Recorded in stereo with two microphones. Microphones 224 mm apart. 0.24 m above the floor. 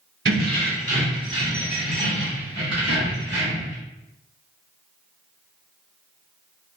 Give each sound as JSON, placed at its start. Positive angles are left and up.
{"t": 0.2, "sound": "keys jangling", "side_deg": -50, "distance_m": 1.2}